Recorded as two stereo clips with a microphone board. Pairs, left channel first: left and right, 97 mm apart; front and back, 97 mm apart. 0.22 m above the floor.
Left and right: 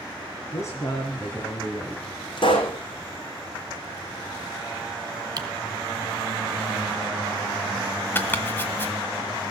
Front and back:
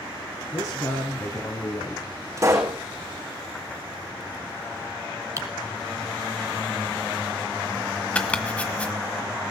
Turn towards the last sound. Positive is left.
turn(degrees=60)